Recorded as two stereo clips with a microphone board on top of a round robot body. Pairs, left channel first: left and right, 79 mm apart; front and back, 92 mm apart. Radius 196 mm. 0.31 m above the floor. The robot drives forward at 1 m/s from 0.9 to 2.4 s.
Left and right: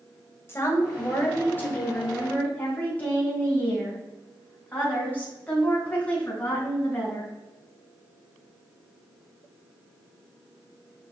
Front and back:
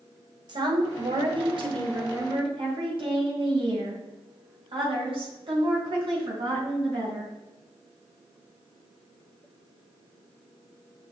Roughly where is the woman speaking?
Behind left.